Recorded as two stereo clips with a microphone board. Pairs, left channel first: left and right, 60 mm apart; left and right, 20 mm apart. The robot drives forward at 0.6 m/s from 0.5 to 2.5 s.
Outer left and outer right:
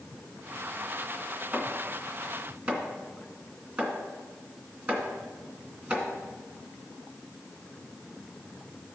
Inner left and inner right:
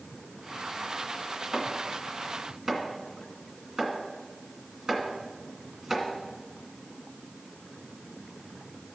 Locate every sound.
1.5 s chopping: 25° right (ahead or behind), 1.9 m; by 6.1 s 20° right (ahead or behind), 2 m